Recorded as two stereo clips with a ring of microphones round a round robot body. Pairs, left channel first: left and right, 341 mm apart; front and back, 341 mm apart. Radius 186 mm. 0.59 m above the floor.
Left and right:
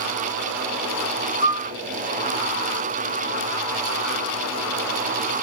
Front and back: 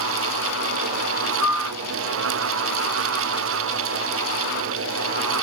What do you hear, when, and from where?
1.4 s a piano: 130° right, 1.4 m